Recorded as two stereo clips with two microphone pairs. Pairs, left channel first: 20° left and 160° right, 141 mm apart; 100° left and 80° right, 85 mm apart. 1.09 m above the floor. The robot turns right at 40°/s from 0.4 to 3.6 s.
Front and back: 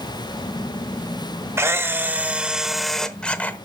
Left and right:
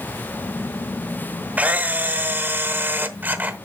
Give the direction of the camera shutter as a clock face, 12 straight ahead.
4 o'clock.